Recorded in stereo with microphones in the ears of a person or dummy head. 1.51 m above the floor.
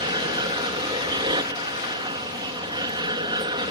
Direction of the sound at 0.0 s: 25° right (ahead or behind).